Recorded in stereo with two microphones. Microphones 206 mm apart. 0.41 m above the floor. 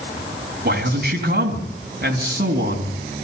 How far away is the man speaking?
About 3.5 m.